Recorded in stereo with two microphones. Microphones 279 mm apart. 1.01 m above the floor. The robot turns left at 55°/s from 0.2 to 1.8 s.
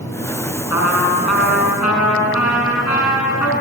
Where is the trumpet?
125° left, 6.5 m; by 3.5 s 65° left, 6.5 m.